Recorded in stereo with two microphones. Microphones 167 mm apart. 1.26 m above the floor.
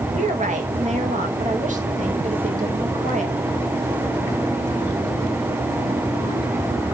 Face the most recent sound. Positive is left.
turn(degrees=-45)  # may be behind; listen again after turning